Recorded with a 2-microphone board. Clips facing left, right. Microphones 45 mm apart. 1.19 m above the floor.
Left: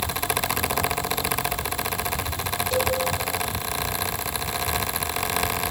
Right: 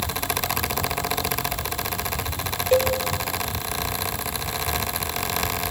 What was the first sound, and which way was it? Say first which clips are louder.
A cowbell: right 5 dB; 40° right (ahead or behind).